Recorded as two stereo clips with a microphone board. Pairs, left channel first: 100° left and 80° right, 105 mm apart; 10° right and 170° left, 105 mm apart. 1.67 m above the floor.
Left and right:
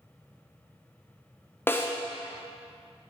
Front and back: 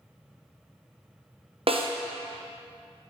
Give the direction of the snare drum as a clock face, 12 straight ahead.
6 o'clock.